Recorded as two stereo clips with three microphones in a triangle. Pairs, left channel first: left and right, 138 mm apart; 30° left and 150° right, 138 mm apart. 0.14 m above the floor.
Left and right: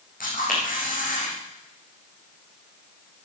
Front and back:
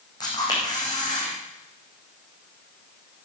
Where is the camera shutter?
90° left, 5 m.